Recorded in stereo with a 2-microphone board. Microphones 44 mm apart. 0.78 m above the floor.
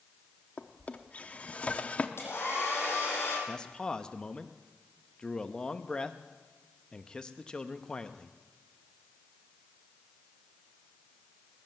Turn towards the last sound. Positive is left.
turn(degrees=20)  # may be behind; listen again after turning